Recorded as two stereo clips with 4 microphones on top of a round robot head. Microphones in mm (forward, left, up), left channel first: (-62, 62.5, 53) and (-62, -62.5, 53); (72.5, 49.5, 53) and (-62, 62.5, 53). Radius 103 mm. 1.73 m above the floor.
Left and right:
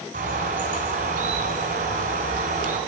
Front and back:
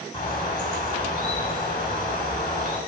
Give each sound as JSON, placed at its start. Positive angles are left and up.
{"t": 0.1, "sound": "a bird", "azimuth_deg": -70, "distance_m": 2.5}